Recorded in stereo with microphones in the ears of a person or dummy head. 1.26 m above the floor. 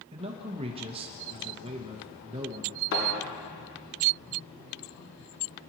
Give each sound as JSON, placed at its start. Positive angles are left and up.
{"t": 0.1, "sound": "a man speaking", "side_deg": -25, "distance_m": 1.1}
{"t": 2.9, "sound": "a thud", "side_deg": 70, "distance_m": 6.0}